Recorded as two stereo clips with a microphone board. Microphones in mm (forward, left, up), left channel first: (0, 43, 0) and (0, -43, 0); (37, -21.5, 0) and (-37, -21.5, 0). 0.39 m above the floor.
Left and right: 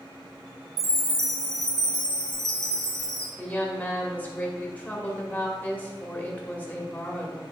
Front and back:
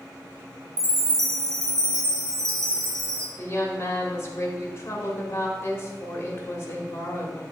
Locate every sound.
0.8 s a chime: 140° right, 1.4 m
3.4 s a woman speaking: 30° left, 1.7 m